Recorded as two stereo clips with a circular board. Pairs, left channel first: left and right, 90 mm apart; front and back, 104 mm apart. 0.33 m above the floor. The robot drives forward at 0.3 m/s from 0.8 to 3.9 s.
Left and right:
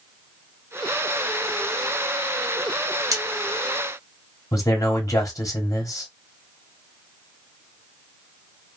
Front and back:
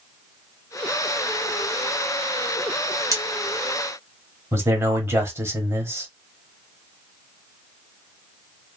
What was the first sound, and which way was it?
Cutlery clinking, 130° right.